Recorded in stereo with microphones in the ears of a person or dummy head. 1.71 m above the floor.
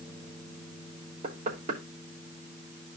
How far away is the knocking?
About 3 m.